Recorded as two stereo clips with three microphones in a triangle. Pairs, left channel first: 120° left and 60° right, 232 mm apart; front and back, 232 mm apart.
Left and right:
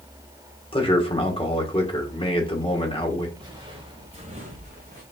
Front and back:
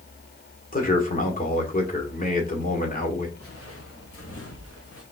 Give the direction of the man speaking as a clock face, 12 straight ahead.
10 o'clock.